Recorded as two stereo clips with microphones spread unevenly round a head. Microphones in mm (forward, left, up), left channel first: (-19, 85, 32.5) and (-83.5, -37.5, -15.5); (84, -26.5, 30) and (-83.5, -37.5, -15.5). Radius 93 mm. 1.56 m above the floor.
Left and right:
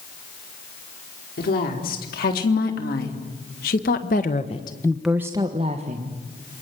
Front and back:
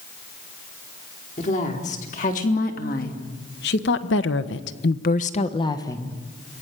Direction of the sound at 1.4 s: 55° left.